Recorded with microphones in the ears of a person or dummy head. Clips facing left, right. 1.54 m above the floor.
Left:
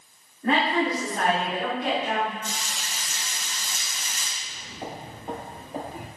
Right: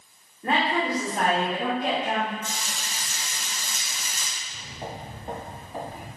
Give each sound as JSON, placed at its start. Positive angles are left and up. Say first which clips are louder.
{"t": 0.4, "sound": "a woman speaking", "louder": "left 2 dB", "side_deg": -5, "distance_m": 1.9}
{"t": 2.4, "sound": "frying", "louder": "even", "side_deg": -45, "distance_m": 1.2}
{"t": 4.4, "sound": "footsteps", "louder": "left 1 dB", "side_deg": -5, "distance_m": 1.8}